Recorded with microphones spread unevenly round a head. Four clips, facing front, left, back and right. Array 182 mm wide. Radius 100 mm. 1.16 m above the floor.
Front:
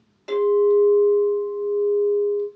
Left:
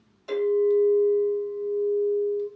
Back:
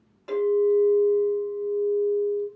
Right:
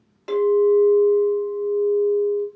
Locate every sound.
0.3 s a clink: 80° right, 1.9 m